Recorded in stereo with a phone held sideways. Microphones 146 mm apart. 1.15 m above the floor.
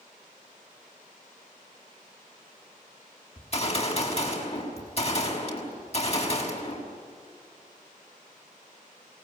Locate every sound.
3.4 s a gunshot: 45° left (ahead or behind), 5.5 m